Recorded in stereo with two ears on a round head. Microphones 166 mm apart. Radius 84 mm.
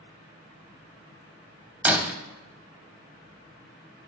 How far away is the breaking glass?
About 0.6 m.